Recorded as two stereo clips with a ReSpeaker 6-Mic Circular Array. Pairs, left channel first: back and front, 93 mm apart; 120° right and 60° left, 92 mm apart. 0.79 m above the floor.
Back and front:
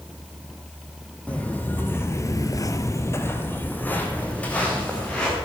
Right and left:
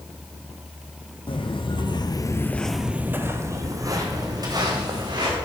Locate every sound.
1.3 s footsteps: 105° right, 1.9 m; by 5.4 s 100° left, 4 m